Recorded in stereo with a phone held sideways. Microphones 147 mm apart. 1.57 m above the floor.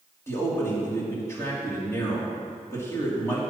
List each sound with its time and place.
0.3 s a man speaking: 20° left (ahead or behind), 4 m